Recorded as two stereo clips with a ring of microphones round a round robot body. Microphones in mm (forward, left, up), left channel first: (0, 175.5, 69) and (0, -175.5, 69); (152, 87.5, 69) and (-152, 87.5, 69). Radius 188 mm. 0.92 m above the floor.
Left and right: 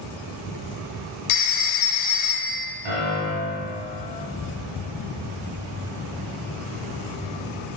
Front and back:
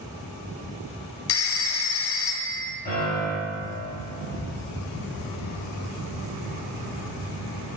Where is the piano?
75° right, 2 m.